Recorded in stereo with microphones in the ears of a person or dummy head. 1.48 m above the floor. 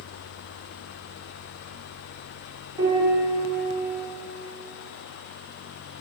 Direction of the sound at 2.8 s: 15° right (ahead or behind).